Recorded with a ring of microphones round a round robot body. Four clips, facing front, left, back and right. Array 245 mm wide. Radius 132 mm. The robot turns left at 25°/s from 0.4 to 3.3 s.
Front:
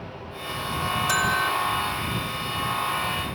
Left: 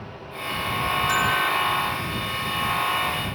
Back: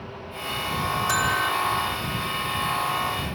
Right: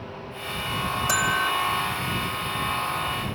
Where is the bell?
75° right; by 1.5 s 85° right.